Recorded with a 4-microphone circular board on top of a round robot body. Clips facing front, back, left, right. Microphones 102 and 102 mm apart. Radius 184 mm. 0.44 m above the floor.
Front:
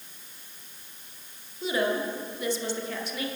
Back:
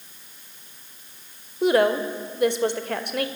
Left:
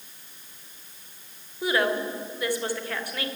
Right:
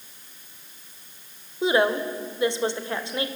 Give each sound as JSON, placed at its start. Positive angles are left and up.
{"t": 1.6, "sound": "a woman speaking", "azimuth_deg": -155, "distance_m": 2.0}